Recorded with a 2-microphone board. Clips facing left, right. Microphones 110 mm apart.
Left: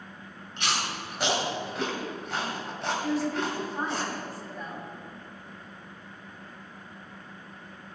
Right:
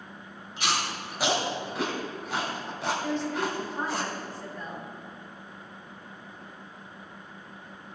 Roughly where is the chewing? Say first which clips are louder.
Right 1 dB; centre.